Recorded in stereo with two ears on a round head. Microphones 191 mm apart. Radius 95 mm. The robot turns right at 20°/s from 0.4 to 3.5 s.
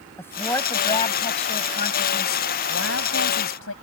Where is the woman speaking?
10° left; by 3.7 s 75° left.